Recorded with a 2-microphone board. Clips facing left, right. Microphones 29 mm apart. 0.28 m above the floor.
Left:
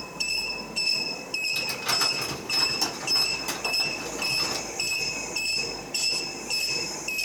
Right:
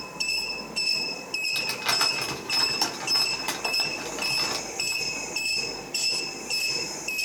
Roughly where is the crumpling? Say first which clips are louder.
Right 3 dB; right.